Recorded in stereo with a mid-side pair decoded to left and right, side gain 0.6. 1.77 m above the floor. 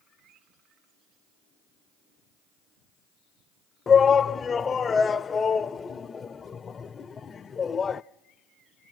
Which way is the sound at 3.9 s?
30° left.